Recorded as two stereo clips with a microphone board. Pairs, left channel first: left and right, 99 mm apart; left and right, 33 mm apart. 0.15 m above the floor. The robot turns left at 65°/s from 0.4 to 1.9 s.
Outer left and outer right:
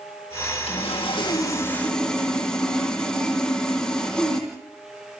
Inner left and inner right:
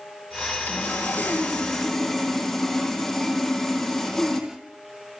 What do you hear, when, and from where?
0.7 s sawing: 90° left, 4 m; by 4.5 s 10° left, 4 m